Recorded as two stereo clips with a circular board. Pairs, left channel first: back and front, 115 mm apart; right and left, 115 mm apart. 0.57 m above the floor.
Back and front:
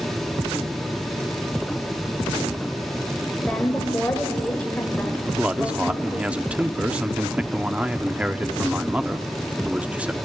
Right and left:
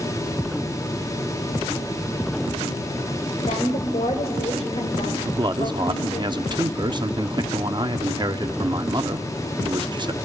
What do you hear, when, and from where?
3.5 s a woman speaking: 105° right, 3 m
5.2 s a man speaking: 75° left, 0.8 m